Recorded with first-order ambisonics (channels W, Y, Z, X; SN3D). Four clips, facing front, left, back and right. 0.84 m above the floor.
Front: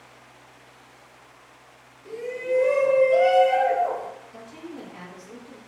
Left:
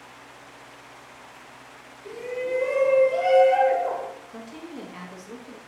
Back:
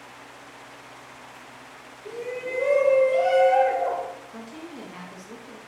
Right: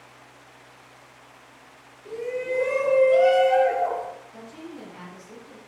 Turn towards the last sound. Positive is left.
turn(degrees=120)